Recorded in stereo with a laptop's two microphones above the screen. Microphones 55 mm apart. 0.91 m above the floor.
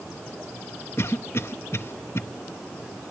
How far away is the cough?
About 0.9 m.